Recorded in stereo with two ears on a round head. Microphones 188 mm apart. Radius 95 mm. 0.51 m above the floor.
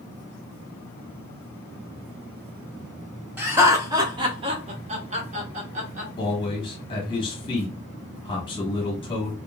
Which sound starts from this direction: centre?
Laughter, at 3.4 s.